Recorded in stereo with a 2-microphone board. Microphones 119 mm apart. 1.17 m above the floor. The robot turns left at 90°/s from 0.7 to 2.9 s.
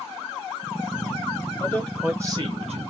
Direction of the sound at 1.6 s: 30° left.